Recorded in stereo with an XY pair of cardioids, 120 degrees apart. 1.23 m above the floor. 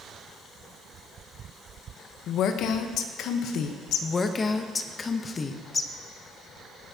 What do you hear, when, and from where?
2.3 s a woman speaking: 70° left, 0.9 m
4.0 s a woman speaking: 30° left, 0.8 m